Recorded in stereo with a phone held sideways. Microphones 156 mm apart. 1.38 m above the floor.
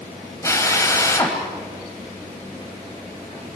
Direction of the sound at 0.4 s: 20° left (ahead or behind).